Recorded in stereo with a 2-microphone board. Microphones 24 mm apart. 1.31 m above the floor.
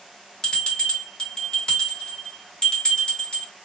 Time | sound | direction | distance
0.4 | a bell | 35° left (ahead or behind) | 1.4 m